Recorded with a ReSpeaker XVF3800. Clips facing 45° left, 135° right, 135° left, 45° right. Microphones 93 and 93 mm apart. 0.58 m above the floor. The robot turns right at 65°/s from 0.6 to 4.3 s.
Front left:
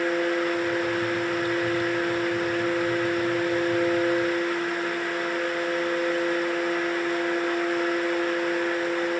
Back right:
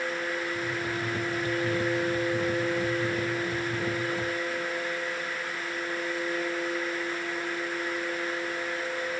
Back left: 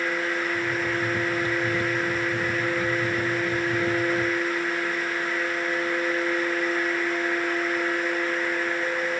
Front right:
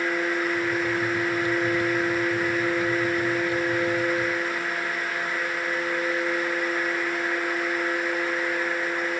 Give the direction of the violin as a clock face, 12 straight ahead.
No violin in this recording.